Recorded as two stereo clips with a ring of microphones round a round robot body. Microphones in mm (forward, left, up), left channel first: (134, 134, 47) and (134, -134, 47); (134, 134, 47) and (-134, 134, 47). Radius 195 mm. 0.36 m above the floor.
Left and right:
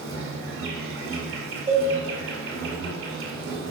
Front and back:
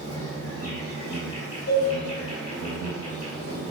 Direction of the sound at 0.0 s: 50° right.